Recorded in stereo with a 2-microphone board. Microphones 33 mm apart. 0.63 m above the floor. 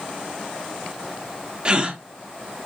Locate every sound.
1.6 s a gasp: 30° right (ahead or behind), 1.6 m